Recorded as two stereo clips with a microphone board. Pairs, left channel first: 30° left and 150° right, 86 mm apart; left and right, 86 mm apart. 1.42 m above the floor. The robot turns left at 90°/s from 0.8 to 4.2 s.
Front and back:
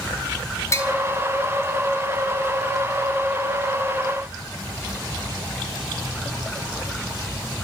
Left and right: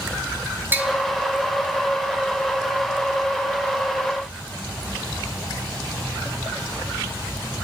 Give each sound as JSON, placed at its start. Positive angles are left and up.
{"t": 0.7, "sound": "tapping", "azimuth_deg": -25, "distance_m": 3.0}